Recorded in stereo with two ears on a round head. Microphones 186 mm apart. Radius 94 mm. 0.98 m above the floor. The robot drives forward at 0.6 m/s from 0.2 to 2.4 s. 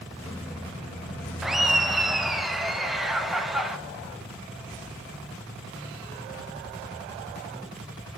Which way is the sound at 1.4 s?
Centre (ahead or behind).